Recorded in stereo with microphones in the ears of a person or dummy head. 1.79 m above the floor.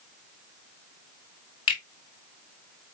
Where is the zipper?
No zipper in this recording.